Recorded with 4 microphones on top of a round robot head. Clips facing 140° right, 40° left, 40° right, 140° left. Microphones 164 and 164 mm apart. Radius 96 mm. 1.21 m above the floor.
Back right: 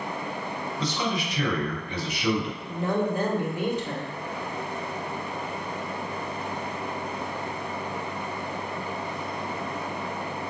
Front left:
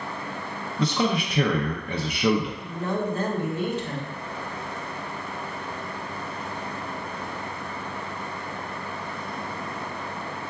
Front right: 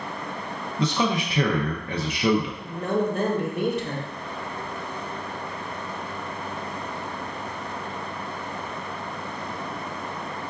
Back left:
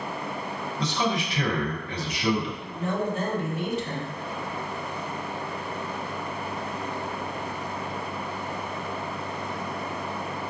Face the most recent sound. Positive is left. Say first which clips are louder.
# back right 1 dB, front right 3 dB
turn(degrees=-65)